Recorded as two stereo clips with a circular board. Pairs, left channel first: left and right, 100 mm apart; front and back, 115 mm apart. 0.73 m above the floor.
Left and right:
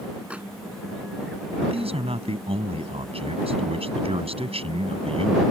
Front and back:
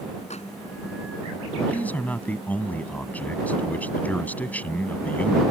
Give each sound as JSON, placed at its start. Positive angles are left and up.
{"t": 0.3, "sound": "a microwave", "azimuth_deg": -10}
{"t": 1.6, "sound": "a man speaking", "azimuth_deg": -75}